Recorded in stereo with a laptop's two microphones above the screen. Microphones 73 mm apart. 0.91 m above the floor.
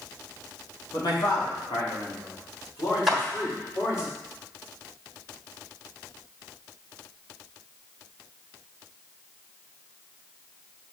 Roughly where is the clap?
Centre.